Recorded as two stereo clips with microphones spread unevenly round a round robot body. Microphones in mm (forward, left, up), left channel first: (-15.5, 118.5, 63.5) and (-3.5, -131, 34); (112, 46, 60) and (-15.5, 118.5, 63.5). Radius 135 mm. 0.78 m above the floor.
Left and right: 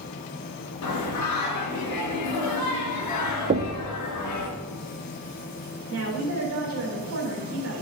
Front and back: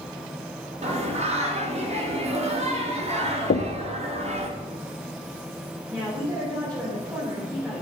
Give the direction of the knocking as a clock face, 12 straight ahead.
1 o'clock.